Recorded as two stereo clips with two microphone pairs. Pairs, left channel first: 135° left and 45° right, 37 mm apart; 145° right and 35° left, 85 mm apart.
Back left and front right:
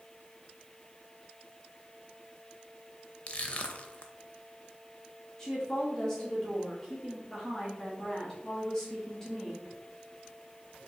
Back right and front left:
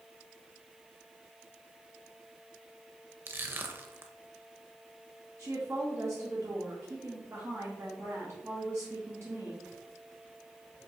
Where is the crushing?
90° left, 0.5 m.